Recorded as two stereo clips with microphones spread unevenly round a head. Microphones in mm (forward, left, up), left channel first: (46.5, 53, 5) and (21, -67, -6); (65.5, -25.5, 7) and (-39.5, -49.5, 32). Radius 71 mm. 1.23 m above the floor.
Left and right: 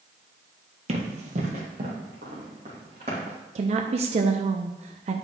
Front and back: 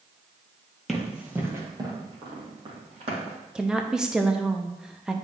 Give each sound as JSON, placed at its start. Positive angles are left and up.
{"t": 0.9, "sound": "running footsteps", "azimuth_deg": -85, "distance_m": 1.9}
{"t": 3.5, "sound": "a woman speaking", "azimuth_deg": -75, "distance_m": 0.6}